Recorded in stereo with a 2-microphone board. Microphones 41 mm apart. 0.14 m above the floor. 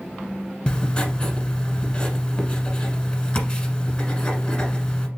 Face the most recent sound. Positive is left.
turn(degrees=20)  # may be behind; listen again after turning